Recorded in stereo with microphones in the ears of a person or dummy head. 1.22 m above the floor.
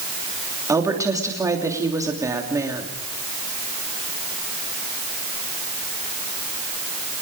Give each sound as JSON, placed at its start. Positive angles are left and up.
{"t": 0.7, "sound": "a woman speaking", "side_deg": -15, "distance_m": 3.0}